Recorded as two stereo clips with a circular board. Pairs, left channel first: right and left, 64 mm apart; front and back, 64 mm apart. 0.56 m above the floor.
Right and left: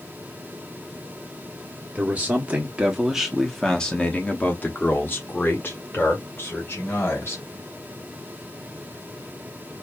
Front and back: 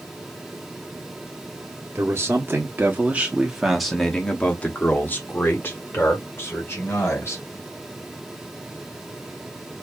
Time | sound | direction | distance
1.9 | a man speaking | 150° left | 1.2 m